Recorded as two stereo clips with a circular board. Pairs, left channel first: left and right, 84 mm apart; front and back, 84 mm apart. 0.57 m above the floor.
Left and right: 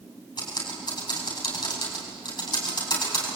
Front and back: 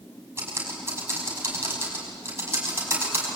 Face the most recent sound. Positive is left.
turn(degrees=120)